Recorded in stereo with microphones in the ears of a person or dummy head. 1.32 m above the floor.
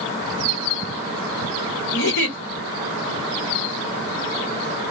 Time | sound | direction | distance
1.9 | a giggle | 55° left (ahead or behind) | 1.1 m